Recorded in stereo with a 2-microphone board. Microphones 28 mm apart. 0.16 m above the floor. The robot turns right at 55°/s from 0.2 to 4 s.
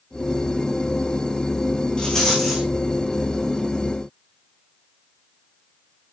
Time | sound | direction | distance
2.0 | a rattle | 145° left | 5 m